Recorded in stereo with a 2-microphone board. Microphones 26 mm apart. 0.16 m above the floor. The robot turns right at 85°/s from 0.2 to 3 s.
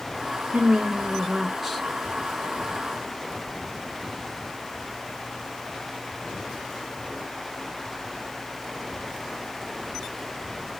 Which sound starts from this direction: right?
A woman speaking, at 0.5 s.